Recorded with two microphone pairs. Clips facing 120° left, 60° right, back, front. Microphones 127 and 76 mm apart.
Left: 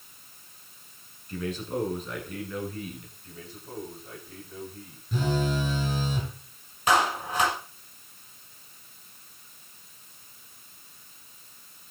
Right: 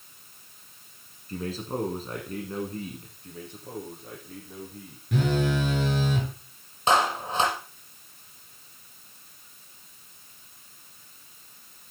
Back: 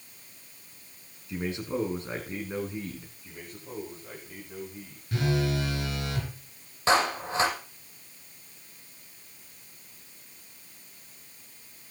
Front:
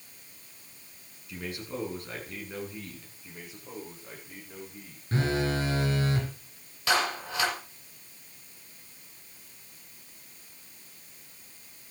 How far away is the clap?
About 6.5 m.